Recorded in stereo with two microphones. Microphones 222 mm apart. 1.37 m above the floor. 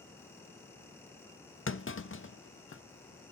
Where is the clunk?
65° left (ahead or behind), 0.5 m.